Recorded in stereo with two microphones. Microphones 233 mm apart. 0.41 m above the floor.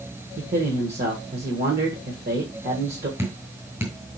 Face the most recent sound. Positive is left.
turn(degrees=-10)  # may be behind; listen again after turning